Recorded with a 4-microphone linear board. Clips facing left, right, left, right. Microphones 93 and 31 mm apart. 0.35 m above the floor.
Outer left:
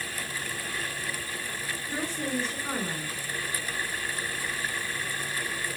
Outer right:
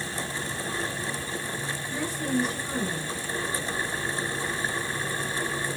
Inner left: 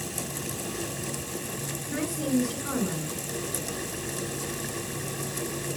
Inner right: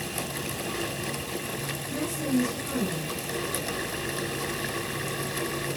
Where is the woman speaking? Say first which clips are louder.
Outer right 1 dB, inner left 2 dB; 35° left (ahead or behind), 5 m.